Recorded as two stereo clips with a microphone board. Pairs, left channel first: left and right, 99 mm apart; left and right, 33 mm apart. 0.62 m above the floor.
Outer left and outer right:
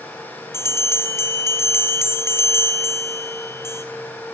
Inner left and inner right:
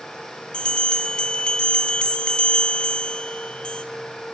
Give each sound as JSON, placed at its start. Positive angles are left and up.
{"t": 0.5, "sound": "a bell", "side_deg": 25, "distance_m": 3.0}